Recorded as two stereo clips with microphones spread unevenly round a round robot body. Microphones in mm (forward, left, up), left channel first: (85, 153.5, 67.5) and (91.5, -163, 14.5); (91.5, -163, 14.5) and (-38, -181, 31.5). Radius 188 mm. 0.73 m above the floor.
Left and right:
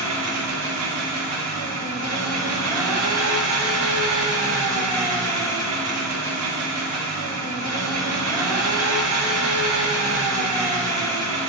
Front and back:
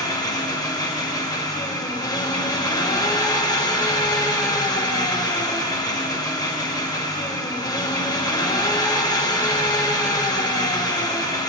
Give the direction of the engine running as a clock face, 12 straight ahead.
2 o'clock.